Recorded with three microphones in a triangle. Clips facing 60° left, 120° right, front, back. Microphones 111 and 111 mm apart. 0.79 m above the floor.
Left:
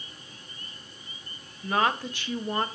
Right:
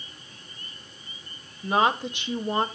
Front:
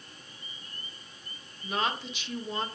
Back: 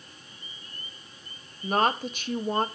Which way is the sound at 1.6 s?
Straight behind.